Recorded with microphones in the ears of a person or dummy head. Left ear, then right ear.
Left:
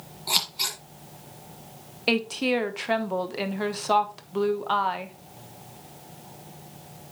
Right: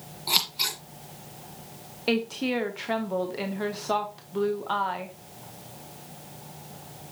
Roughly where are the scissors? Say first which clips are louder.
Right 1 dB; centre.